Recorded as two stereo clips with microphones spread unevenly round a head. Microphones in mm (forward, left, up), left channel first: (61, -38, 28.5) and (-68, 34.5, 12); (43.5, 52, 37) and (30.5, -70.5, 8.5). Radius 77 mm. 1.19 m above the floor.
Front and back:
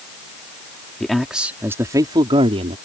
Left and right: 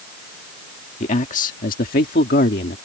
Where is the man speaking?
55° left; by 2.8 s 100° left.